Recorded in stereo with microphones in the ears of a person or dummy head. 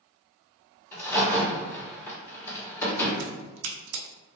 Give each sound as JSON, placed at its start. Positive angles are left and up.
{"t": 0.9, "sound": "a crack", "side_deg": 15, "distance_m": 1.3}
{"t": 3.2, "sound": "a crack", "side_deg": -70, "distance_m": 0.5}